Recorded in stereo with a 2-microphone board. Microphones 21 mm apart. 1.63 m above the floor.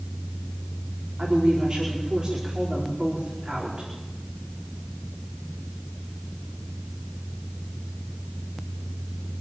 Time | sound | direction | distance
1.2 | a woman speaking | 45° right (ahead or behind) | 5 m